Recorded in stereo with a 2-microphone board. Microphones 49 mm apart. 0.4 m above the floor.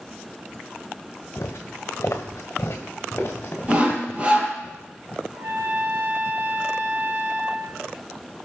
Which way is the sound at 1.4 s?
50° left (ahead or behind).